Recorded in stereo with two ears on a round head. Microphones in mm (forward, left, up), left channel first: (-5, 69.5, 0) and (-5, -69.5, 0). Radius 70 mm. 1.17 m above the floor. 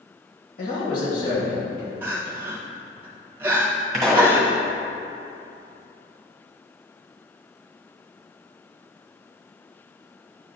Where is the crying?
15° right (ahead or behind), 1.2 m.